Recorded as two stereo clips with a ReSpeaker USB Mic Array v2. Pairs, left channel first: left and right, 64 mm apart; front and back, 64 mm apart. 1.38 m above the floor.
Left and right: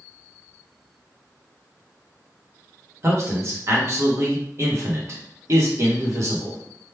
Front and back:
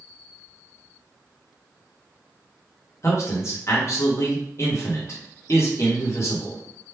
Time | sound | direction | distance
3.0 | a man speaking | 45° right | 1.2 m